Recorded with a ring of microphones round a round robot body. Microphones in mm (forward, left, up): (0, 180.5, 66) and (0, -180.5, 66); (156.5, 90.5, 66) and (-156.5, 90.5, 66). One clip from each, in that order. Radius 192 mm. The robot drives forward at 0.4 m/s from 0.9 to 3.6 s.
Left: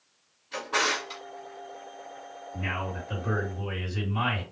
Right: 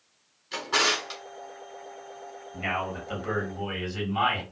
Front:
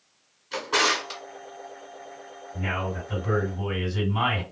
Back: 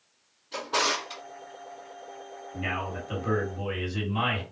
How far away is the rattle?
I don't hear a rattle.